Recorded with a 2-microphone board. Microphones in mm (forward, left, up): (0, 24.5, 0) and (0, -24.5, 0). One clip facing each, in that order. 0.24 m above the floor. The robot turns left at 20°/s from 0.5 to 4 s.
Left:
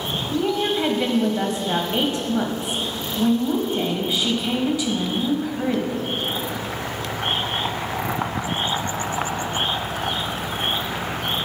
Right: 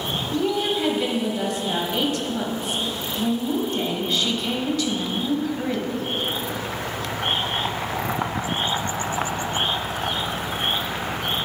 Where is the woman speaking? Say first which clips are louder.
Left 1 dB; 25° left (ahead or behind), 1.0 m; by 6.1 s 10° left (ahead or behind), 1.0 m.